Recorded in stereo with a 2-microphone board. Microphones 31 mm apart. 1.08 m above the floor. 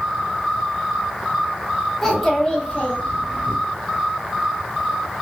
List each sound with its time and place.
2.0 s a child speaking: 5° left (ahead or behind), 1.0 m; by 3.5 s 60° left (ahead or behind), 1.4 m